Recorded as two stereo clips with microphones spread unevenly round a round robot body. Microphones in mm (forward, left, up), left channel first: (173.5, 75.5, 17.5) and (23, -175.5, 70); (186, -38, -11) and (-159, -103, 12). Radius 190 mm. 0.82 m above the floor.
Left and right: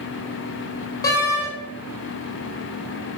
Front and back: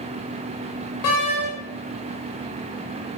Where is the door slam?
20° right, 4 m.